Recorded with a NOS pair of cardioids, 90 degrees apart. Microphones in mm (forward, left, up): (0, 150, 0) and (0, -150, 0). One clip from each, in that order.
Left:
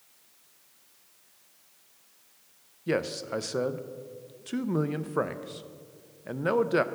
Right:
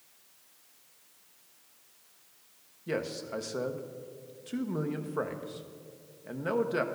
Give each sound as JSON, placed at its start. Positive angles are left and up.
{"t": 2.9, "sound": "a man speaking", "azimuth_deg": 25, "distance_m": 0.5}